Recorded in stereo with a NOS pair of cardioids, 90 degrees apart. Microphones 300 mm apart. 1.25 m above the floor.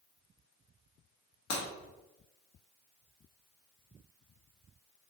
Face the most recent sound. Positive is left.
turn(degrees=60)